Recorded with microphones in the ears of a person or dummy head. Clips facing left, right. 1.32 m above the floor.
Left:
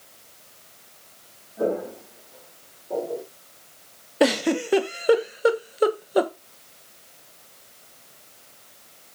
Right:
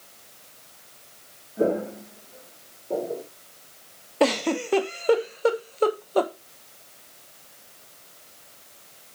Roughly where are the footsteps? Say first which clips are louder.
Right 2 dB; right.